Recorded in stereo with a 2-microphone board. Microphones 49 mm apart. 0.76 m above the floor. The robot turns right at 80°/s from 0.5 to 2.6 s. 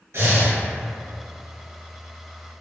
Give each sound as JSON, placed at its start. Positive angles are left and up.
{"t": 0.1, "sound": "breathing", "side_deg": -70, "distance_m": 1.5}